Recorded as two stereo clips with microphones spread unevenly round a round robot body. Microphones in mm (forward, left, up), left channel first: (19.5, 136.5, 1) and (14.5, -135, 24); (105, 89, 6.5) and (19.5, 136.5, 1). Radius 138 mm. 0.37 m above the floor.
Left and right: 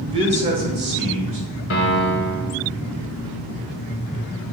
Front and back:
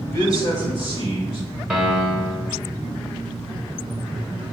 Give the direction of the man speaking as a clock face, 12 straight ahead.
1 o'clock.